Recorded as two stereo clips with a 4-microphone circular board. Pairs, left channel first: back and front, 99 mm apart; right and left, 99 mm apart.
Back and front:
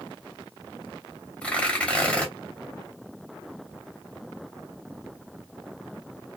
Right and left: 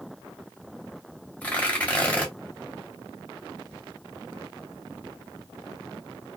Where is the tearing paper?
130° right, 1.1 m.